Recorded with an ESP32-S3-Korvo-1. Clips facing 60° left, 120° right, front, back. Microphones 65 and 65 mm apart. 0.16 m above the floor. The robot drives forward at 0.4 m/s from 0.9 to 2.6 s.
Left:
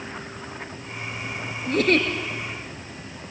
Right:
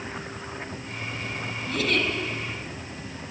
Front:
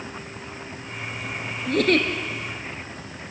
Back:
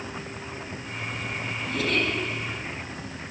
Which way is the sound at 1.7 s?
20° left.